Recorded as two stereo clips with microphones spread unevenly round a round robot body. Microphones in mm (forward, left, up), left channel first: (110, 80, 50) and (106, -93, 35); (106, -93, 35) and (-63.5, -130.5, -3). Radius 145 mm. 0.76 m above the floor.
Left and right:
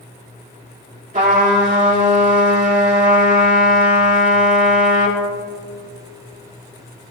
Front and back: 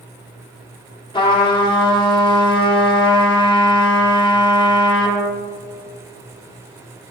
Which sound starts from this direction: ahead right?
A trumpet, at 1.1 s.